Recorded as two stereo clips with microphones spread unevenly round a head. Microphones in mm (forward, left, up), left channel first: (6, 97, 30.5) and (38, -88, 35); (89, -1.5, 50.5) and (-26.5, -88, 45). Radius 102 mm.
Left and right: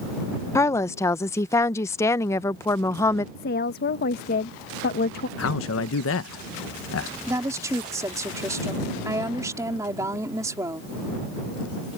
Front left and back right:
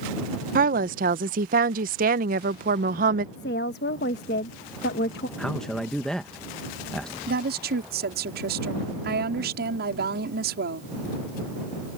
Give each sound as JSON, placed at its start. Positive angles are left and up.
{"t": 0.6, "sound": "a woman speaking", "azimuth_deg": 175}
{"t": 3.4, "sound": "a woman speaking", "azimuth_deg": 60}
{"t": 5.4, "sound": "a man speaking", "azimuth_deg": 125}
{"t": 7.3, "sound": "a woman speaking", "azimuth_deg": -155}